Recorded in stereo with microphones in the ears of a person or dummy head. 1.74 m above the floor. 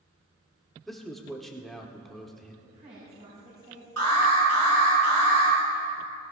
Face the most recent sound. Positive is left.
turn(degrees=-85)